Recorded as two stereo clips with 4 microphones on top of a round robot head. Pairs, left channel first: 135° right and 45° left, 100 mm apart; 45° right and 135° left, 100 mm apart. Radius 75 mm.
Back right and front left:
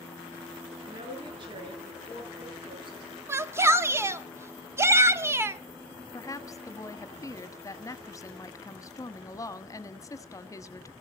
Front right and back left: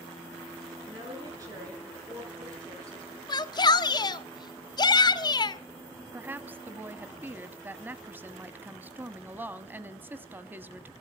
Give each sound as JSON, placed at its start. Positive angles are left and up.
{"t": 0.8, "sound": "a woman speaking", "azimuth_deg": 80, "distance_m": 8.5}
{"t": 3.3, "sound": "a shout", "azimuth_deg": -15, "distance_m": 1.3}
{"t": 6.1, "sound": "a woman speaking", "azimuth_deg": -165, "distance_m": 1.4}